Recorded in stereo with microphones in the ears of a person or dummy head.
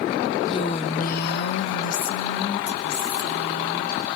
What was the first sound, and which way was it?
A woman speaking, 25° left (ahead or behind).